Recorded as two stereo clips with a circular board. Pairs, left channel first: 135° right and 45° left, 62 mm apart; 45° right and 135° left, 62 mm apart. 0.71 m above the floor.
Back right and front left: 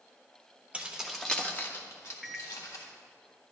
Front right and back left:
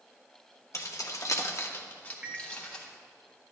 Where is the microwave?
135° left, 0.6 m.